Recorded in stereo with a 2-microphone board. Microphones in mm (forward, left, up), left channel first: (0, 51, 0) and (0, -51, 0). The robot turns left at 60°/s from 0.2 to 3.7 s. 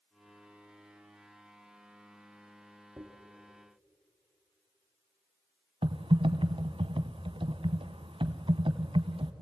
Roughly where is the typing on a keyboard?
Right.